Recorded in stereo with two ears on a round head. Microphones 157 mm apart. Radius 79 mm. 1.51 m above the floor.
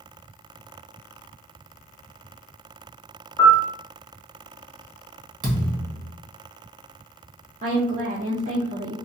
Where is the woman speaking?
45° right (ahead or behind), 0.6 m.